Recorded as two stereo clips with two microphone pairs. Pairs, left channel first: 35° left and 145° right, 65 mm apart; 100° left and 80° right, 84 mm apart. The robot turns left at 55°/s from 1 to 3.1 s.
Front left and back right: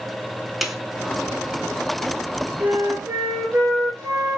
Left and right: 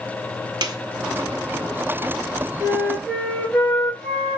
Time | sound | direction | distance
0.6 | a snare drum | 55° right | 0.6 m
2.6 | a flute | 155° right | 1.8 m